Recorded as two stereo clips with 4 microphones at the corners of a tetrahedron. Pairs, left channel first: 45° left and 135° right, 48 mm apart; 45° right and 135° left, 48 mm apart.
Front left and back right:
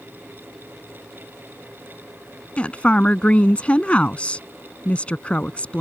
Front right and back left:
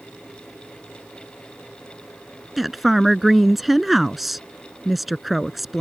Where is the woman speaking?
50° left.